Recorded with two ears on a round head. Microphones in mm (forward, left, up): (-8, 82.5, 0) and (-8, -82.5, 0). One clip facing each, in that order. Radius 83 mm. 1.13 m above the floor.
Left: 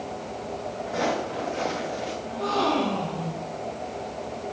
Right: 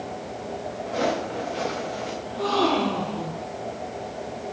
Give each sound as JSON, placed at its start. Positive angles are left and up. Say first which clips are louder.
{"t": 0.9, "sound": "footsteps", "louder": "right 2 dB", "side_deg": -45, "distance_m": 6.0}
{"t": 2.2, "sound": "a gasp", "louder": "right 3 dB", "side_deg": -80, "distance_m": 5.5}